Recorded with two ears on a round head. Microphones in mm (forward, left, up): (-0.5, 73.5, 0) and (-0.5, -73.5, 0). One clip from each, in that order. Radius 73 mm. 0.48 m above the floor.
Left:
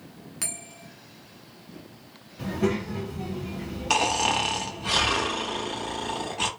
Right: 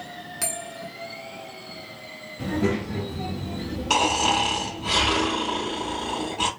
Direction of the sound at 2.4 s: 50° left (ahead or behind).